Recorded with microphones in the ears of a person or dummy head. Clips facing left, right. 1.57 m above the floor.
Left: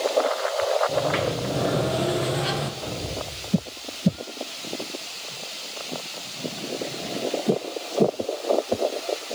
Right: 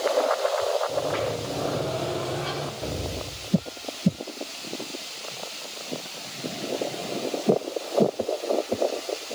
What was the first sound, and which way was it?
A sliding door, 25° left (ahead or behind).